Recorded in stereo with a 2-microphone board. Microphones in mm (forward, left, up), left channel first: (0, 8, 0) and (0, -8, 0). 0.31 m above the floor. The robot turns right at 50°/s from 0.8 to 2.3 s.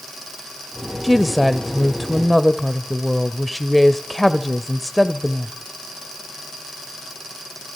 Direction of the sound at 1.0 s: 15° right (ahead or behind).